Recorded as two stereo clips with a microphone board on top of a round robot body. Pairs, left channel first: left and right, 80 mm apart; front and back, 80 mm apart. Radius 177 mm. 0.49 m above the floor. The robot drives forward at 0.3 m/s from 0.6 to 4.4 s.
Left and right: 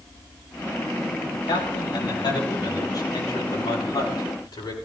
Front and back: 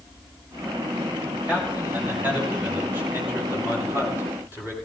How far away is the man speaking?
About 5.5 m.